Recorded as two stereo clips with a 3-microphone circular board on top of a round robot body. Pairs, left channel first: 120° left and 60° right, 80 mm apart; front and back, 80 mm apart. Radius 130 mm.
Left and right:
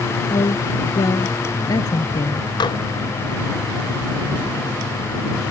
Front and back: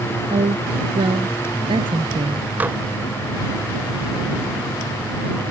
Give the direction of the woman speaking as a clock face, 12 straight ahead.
7 o'clock.